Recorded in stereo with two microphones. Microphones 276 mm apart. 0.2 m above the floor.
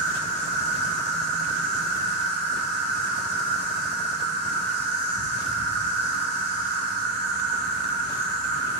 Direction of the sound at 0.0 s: 35° right (ahead or behind).